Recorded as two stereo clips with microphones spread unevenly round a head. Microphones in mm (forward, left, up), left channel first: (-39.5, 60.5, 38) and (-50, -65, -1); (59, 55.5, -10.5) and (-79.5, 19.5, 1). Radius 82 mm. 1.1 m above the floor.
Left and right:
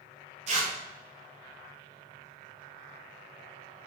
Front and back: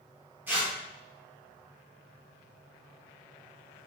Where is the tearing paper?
85° right, 1.5 m.